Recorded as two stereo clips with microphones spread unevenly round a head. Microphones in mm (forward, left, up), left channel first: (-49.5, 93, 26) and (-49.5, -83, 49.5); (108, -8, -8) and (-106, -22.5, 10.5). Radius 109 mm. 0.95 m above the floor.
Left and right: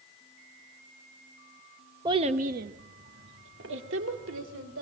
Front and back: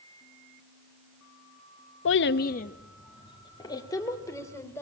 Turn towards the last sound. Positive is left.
turn(degrees=-75)